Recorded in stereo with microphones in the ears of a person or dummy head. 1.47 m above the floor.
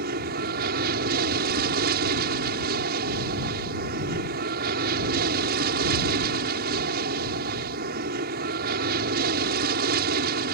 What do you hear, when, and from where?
0.0 s an aircraft: 50° right (ahead or behind)